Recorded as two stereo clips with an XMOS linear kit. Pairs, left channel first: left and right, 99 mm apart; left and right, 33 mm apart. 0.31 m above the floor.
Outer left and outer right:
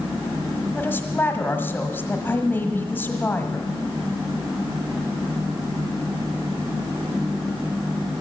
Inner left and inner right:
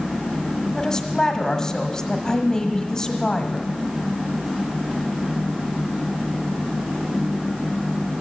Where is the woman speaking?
20° left (ahead or behind), 1.4 m.